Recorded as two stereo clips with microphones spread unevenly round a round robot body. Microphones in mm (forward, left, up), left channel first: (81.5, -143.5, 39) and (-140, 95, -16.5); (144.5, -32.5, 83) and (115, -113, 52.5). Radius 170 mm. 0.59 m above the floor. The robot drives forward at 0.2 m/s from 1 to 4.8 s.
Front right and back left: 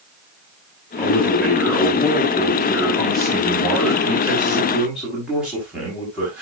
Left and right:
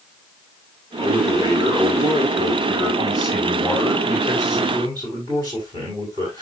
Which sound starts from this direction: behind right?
A man speaking, at 1.0 s.